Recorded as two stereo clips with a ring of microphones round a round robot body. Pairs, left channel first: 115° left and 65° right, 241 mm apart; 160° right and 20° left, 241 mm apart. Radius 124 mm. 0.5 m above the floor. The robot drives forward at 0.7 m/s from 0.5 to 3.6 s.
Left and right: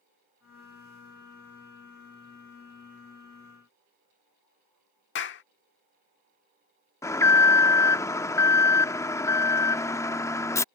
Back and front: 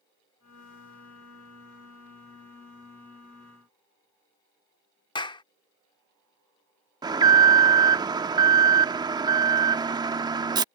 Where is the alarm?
60° left.